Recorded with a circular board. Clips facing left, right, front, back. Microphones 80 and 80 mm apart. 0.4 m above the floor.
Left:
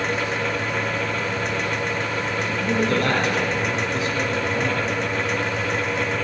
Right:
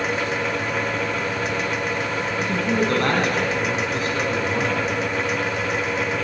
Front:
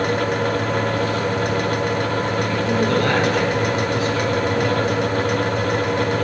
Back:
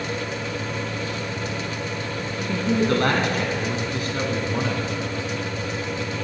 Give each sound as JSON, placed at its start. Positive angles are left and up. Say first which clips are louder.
{"t": 2.4, "sound": "a man speaking", "louder": "right 1 dB, back 1 dB", "azimuth_deg": -135, "distance_m": 3.0}